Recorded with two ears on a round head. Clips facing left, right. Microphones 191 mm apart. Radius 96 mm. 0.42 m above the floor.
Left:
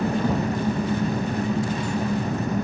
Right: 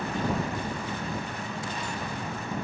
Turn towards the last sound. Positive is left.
turn(degrees=35)  # may be behind; listen again after turning